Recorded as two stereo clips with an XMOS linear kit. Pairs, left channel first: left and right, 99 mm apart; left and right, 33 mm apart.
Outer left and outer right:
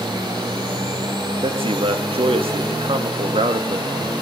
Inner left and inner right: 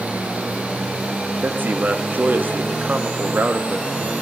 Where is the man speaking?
65° right (ahead or behind), 1.3 m.